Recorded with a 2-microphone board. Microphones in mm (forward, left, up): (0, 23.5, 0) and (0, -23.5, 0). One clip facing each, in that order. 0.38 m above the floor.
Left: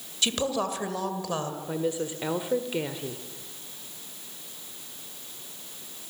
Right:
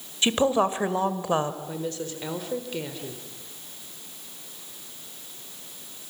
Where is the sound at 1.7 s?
15° left (ahead or behind), 1.5 m.